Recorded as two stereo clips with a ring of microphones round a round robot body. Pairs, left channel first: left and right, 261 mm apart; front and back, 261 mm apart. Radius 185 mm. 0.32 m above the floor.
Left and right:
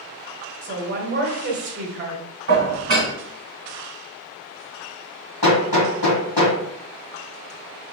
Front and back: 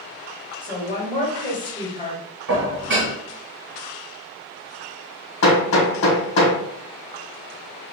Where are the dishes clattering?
130° right, 1.9 m.